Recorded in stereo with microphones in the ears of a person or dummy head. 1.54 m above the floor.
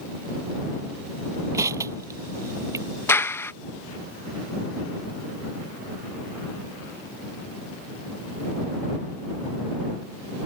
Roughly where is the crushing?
Centre.